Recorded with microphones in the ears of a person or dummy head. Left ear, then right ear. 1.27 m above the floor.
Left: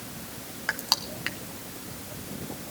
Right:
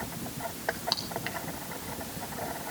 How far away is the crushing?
About 1.0 m.